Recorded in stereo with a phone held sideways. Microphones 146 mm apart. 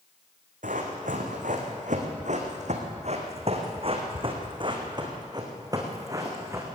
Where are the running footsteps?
75° right (ahead or behind), 3.5 m; by 6.7 s 20° right (ahead or behind), 4 m.